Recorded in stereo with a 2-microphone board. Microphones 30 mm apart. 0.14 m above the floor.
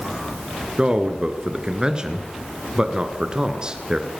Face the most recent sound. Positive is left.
turn(degrees=-25)  # may be behind; listen again after turning